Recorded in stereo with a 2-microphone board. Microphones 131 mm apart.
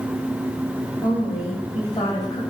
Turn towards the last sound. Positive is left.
turn(degrees=35)  # may be behind; listen again after turning